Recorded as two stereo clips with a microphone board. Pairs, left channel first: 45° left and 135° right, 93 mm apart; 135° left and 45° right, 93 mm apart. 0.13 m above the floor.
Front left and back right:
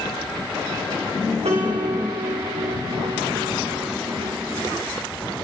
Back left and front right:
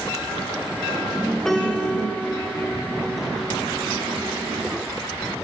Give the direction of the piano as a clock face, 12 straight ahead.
5 o'clock.